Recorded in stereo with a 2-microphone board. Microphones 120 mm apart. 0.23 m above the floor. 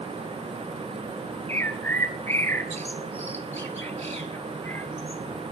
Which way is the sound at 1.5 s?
20° left (ahead or behind).